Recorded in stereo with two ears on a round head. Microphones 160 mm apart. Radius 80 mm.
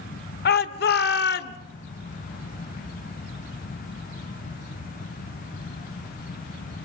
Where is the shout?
60° left (ahead or behind), 2 m.